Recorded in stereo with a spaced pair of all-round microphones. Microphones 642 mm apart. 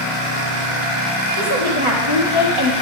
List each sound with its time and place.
1.4 s a woman speaking: 50° right (ahead or behind), 2 m